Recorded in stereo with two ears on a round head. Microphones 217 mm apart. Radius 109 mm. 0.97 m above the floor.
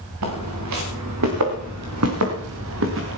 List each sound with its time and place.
0.2 s footsteps: 80° right, 6.5 m; by 3.2 s 50° right (ahead or behind), 5.5 m